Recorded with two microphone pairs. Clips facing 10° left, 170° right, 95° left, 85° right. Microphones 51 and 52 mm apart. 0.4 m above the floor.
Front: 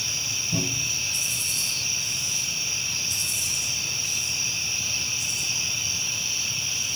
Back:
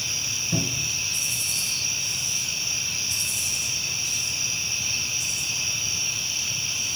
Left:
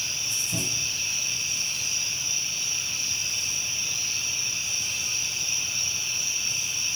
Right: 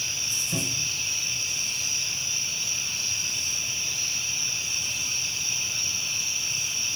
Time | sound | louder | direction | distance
0.5 | a cupboard door | back 1 dB, right 1 dB | 155° right | 4 m